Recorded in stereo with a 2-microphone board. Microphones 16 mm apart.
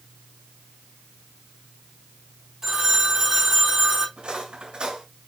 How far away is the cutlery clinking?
About 4 m.